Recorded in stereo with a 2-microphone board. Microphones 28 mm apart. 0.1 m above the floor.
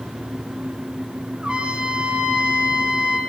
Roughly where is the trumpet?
Right.